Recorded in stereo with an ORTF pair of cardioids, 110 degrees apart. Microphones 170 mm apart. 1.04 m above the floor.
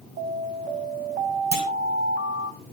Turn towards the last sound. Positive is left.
turn(degrees=-65)